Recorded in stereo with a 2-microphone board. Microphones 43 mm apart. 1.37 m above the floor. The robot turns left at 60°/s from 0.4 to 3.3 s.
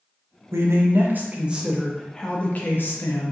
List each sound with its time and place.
0.5 s a man speaking: 95° right, 0.6 m; by 3.3 s 95° left, 0.6 m